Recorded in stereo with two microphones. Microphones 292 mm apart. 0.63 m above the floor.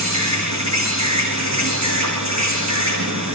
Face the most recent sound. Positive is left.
turn(degrees=-65)  # may be behind; listen again after turning